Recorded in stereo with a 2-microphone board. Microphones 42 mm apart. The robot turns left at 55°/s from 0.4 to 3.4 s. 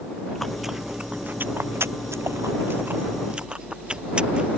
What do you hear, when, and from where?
0.3 s chewing: 5° left (ahead or behind); by 4.5 s 20° right (ahead or behind)